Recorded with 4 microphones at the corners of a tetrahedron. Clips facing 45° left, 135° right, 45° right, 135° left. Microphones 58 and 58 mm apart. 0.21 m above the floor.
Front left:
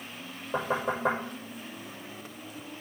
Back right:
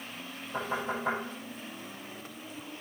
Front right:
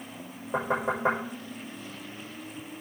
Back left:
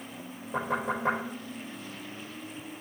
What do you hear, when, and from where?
0.5 s knocking: 5° left, 6.5 m